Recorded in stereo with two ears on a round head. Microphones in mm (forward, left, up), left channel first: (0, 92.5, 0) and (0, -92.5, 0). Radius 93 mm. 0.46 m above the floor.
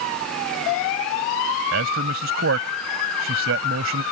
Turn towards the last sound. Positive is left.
turn(degrees=-70)  # may be behind; listen again after turning